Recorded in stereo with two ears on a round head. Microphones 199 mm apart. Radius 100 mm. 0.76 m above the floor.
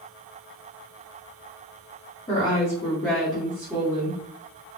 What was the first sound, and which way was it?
A woman speaking, 25° left (ahead or behind).